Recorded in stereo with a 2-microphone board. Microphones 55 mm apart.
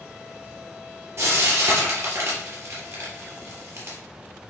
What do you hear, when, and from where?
1.2 s frying: 55° right (ahead or behind), 3.5 m